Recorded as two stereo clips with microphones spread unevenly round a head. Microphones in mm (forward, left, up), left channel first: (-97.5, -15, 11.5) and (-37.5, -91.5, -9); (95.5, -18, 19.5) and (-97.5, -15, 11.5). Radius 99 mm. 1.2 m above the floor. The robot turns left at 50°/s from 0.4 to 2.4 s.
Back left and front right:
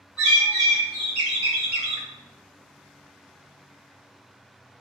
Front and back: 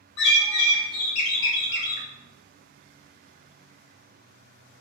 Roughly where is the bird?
Ahead left.